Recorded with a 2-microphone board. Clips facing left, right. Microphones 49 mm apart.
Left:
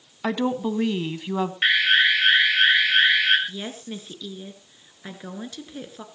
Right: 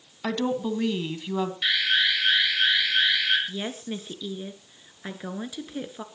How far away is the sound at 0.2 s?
About 1.4 m.